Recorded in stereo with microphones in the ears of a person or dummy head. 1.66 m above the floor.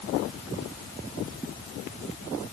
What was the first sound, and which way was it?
Only background noise.